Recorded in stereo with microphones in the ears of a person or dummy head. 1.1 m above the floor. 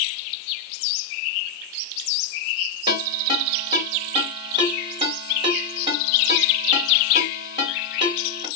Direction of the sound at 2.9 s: 35° right (ahead or behind).